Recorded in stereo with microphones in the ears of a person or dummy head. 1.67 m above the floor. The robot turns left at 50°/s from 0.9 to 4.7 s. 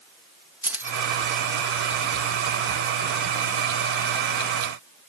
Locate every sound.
0.6 s keys jangling: 10° right (ahead or behind); by 1.1 s 5° right (ahead or behind)